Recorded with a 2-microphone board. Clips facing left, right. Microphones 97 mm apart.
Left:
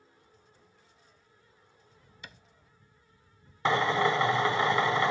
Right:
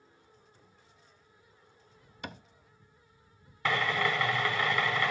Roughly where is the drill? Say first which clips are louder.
Left 4 dB; left.